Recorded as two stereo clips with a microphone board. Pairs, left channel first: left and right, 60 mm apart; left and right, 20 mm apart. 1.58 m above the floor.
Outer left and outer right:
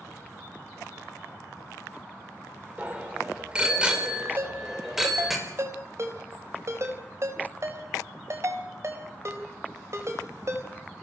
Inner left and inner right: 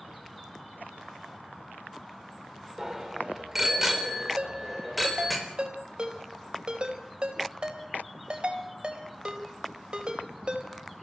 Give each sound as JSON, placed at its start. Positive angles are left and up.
{"t": 2.8, "sound": "a bicycle bell", "side_deg": -25, "distance_m": 4.0}
{"t": 4.4, "sound": "a ringtone", "side_deg": -50, "distance_m": 4.0}